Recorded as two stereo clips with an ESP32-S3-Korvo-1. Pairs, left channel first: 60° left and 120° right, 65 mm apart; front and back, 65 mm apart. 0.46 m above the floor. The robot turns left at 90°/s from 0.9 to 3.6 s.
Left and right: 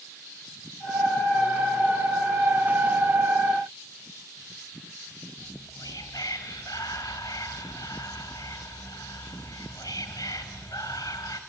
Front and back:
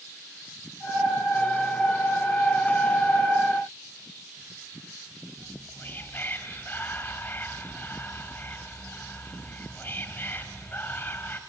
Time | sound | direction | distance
5.4 | whispering | 55° left | 2.5 m